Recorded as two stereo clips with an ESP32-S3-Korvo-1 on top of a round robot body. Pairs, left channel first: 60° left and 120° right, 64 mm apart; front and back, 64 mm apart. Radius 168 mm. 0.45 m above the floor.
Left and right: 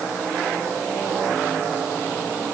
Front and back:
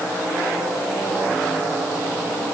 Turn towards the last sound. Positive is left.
No sound to turn to.